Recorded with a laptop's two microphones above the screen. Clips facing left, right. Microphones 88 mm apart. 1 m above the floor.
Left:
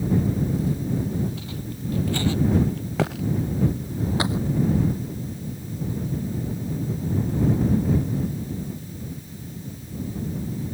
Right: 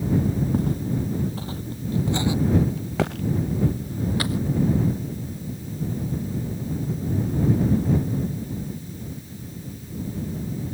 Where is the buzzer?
I don't hear a buzzer.